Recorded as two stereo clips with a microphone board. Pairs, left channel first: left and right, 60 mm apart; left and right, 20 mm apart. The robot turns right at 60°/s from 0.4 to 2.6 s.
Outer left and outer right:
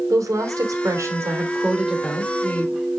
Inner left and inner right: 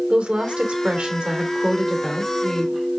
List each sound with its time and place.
0.1 s a woman speaking: 100° right, 3 m; by 2.7 s 35° left, 3 m